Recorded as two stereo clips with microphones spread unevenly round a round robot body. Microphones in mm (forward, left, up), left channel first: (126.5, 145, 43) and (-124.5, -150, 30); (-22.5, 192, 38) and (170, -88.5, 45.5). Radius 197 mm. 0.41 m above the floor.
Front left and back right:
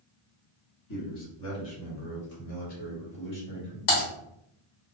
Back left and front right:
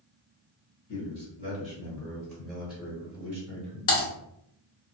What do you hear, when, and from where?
0.9 s a man speaking: 75° left, 1.9 m; by 3.8 s 5° right, 1.6 m
3.9 s typing on a keyboard: 80° left, 1.2 m